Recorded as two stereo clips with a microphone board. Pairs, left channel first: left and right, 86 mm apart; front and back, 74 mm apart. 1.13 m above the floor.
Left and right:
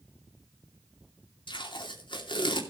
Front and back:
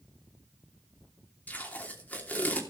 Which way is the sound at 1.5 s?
70° left.